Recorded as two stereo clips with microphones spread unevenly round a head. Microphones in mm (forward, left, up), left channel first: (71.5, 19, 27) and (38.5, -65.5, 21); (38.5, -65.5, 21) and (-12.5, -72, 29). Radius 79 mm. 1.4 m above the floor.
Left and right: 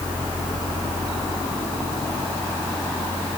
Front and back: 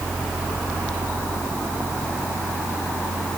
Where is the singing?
No singing in this recording.